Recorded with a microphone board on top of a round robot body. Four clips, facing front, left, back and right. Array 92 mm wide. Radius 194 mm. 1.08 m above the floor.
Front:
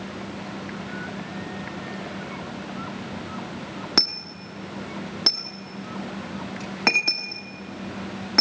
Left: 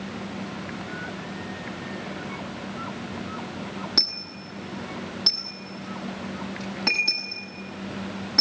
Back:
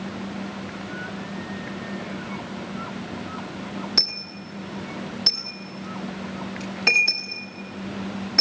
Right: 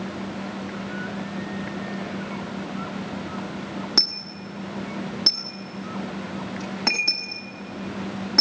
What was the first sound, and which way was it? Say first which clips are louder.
A dropped coin: right 3 dB, front 4 dB; 10° right.